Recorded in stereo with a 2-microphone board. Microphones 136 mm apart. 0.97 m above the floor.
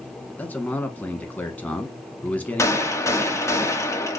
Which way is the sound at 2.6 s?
20° left (ahead or behind).